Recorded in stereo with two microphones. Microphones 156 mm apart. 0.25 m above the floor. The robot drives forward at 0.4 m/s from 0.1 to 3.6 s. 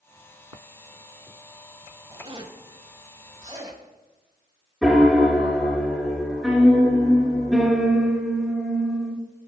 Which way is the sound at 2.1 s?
30° right (ahead or behind).